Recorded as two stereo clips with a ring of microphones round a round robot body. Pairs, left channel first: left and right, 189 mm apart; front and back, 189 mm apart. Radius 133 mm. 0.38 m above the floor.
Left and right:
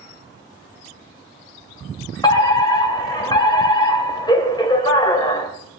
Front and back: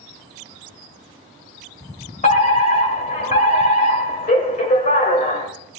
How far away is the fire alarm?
About 3 m.